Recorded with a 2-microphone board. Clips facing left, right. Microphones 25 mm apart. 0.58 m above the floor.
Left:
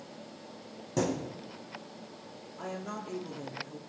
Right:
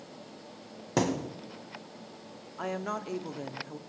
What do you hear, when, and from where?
1.0 s a thud: 50° right (ahead or behind), 1.2 m
2.6 s a woman speaking: 35° right (ahead or behind), 0.9 m